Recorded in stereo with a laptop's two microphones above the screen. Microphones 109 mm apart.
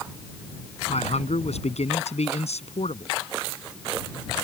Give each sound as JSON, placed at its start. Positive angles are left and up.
{"t": 0.9, "sound": "a man speaking", "side_deg": 80}